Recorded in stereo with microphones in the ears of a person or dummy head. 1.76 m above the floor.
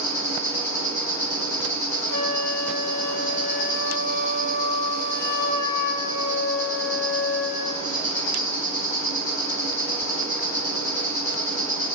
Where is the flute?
85° left, 0.6 m.